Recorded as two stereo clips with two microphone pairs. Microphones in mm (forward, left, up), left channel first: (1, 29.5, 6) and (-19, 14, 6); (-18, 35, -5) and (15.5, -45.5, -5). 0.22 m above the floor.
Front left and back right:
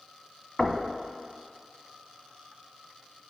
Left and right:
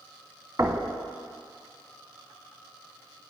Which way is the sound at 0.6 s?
40° right.